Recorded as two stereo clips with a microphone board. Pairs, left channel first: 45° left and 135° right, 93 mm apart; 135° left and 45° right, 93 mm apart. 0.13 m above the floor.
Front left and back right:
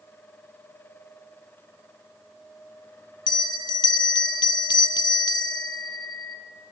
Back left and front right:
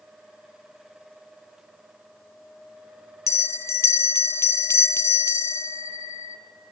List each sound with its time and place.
3.3 s a bell: 80° left, 0.6 m